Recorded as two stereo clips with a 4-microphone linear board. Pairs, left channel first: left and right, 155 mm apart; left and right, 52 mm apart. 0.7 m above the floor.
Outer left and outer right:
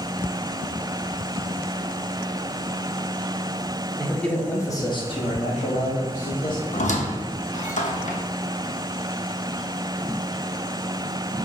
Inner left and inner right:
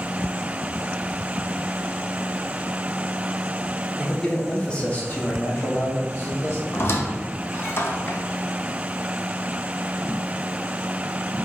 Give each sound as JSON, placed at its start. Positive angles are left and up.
{"t": 4.0, "sound": "a man speaking", "side_deg": 0, "distance_m": 1.2}
{"t": 6.7, "sound": "a squeak", "side_deg": 55, "distance_m": 0.6}